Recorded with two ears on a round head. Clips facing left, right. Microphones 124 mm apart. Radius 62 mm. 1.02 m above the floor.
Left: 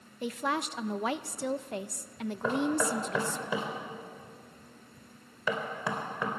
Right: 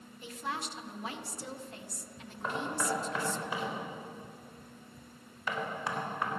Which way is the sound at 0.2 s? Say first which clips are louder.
Left 7 dB; 50° left (ahead or behind).